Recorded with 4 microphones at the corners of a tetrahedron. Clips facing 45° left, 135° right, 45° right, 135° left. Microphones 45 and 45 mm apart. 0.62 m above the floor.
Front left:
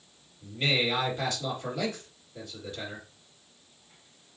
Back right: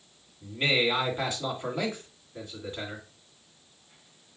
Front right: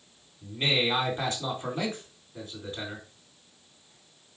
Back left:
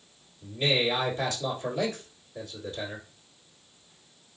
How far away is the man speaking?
About 1.7 m.